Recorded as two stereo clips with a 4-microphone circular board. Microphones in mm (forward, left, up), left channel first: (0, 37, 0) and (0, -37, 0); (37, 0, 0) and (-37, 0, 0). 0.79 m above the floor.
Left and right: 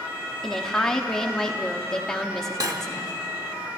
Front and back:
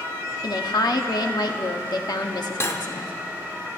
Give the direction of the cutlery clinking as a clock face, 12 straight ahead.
2 o'clock.